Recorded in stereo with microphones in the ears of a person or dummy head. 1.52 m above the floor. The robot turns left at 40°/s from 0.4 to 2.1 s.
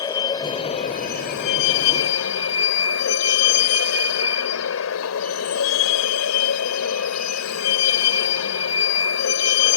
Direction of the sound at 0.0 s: 160° left.